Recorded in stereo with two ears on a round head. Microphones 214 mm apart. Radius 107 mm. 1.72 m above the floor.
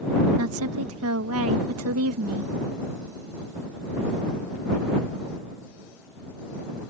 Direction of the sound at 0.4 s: 65° right (ahead or behind).